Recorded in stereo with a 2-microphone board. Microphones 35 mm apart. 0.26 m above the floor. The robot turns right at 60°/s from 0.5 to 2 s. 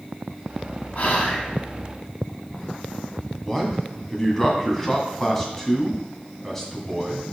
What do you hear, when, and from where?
0.9 s whispering: 110° left, 1.9 m; by 1.5 s 140° left, 1.9 m
3.4 s a man speaking: 10° left (ahead or behind), 2 m